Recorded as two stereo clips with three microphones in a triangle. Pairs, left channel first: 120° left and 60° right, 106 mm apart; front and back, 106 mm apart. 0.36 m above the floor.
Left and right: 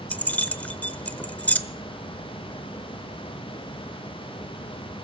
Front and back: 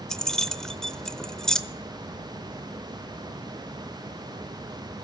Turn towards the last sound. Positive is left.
turn(degrees=75)